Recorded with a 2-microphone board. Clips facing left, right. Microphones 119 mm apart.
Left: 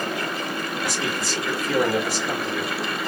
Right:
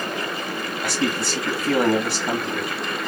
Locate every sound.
0.8 s a man speaking: 65° right (ahead or behind), 2 m